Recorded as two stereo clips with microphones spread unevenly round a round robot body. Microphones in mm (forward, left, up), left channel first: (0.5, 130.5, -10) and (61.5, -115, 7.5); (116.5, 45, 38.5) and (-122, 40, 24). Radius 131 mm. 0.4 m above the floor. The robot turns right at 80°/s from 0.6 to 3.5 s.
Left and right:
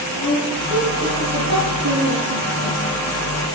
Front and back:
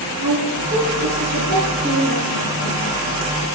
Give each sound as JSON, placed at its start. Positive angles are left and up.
{"t": 0.2, "sound": "a woman speaking", "azimuth_deg": 180, "distance_m": 5.0}